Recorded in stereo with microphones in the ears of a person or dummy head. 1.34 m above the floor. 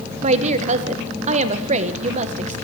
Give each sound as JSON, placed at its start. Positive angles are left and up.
{"t": 0.2, "sound": "a woman speaking", "side_deg": -40, "distance_m": 0.9}